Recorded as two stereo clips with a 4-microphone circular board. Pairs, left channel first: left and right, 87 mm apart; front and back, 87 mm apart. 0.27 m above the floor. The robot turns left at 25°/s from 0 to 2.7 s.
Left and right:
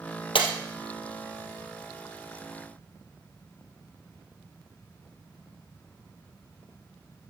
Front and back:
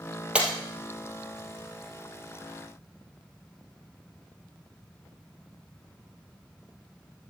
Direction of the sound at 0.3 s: 100° left.